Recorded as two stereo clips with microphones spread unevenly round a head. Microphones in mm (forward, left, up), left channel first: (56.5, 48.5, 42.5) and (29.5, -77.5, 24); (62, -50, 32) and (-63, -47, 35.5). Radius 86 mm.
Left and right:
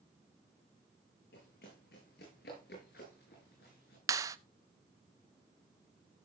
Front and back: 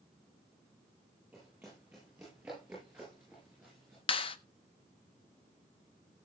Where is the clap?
35° right, 0.6 m.